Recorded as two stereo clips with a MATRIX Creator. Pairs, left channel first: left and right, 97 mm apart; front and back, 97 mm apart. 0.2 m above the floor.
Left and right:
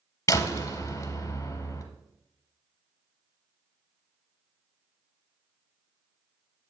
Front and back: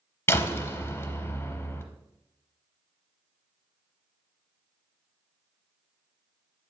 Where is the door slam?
55° left, 0.8 m.